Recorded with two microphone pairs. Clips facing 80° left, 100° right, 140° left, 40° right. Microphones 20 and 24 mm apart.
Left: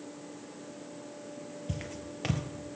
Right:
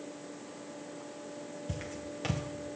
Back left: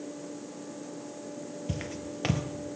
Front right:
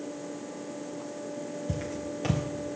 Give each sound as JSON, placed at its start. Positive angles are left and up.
{"t": 1.7, "sound": "footsteps", "azimuth_deg": 155, "distance_m": 0.8}